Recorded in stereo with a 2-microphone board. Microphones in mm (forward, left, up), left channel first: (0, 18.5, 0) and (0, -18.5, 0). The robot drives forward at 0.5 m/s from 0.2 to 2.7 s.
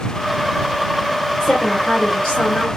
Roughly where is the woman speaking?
Centre.